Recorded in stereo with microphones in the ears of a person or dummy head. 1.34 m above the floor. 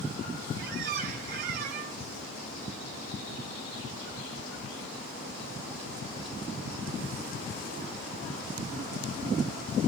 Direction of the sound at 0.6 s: 45° right (ahead or behind).